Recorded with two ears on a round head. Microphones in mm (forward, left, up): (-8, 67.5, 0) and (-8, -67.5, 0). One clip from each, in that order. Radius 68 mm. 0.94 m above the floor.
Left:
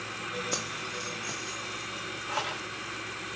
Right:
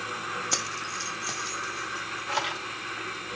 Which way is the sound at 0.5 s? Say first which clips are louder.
Right 3 dB; 25° right (ahead or behind).